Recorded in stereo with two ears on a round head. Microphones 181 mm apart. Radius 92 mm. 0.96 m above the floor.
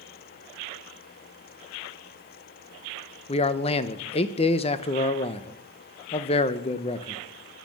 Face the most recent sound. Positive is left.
turn(degrees=30)  # may be behind; listen again after turning